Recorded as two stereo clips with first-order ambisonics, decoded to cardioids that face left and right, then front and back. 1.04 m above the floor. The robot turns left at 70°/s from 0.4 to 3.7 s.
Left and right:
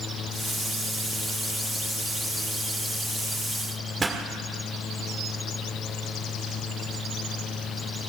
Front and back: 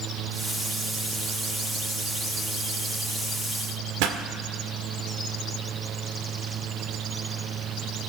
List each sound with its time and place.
4.0 s a pop: 165° right, 1.6 m